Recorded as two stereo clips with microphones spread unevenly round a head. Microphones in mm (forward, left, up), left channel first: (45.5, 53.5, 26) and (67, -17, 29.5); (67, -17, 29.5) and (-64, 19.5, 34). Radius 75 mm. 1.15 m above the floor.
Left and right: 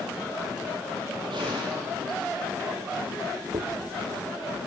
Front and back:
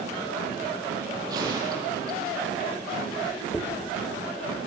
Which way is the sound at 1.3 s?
130° right.